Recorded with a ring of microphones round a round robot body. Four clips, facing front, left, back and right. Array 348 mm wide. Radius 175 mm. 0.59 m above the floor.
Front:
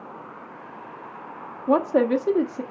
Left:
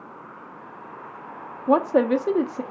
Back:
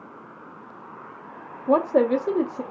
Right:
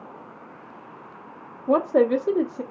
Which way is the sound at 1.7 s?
60° left.